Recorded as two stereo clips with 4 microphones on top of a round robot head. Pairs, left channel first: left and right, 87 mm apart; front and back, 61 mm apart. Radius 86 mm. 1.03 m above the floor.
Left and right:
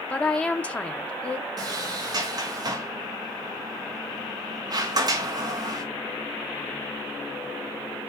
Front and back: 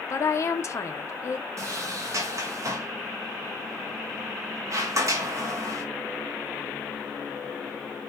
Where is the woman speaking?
20° left, 0.7 m.